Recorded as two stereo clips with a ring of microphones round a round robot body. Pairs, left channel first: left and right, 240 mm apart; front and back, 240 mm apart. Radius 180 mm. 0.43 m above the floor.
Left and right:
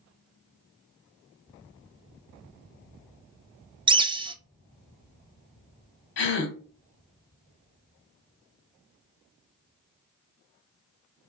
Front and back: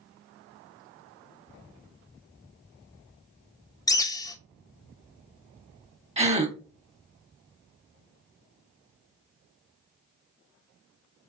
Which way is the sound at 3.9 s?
55° right.